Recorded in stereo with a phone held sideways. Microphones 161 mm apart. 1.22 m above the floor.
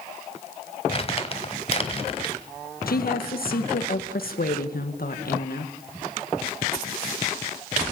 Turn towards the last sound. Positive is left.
turn(degrees=70)  # may be behind; listen again after turning